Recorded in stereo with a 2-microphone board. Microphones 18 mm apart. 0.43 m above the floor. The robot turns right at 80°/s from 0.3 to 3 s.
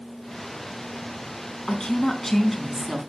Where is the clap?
No clap in this recording.